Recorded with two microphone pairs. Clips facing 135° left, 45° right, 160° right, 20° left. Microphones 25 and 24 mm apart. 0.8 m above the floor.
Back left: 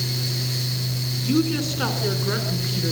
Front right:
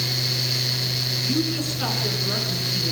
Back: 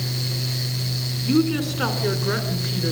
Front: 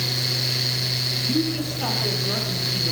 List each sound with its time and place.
1.2 s a woman speaking: 170° right, 3 m